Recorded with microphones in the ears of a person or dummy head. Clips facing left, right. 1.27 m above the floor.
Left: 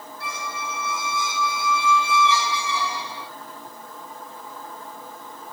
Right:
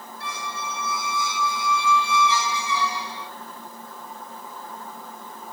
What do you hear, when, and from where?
0.2 s a squeak: 70° left (ahead or behind), 2.5 m